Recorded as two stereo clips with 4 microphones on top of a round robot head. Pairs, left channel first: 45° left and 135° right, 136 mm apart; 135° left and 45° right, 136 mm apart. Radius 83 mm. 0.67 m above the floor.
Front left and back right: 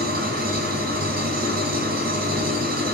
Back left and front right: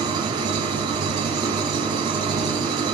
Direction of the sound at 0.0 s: 110° right.